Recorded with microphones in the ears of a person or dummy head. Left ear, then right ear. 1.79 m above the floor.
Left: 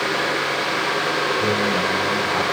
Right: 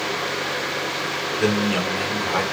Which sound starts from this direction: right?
A man speaking, at 1.4 s.